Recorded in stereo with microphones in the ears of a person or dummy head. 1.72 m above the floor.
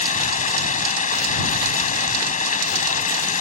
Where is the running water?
40° left (ahead or behind).